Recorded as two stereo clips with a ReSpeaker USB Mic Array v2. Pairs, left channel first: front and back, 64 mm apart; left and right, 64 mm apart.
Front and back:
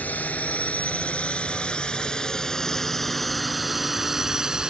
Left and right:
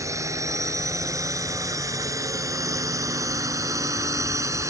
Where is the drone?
65° right; by 4.7 s 105° right.